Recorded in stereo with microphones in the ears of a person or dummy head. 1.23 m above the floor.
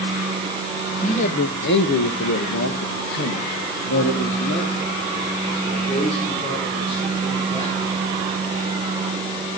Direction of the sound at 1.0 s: 30° left (ahead or behind).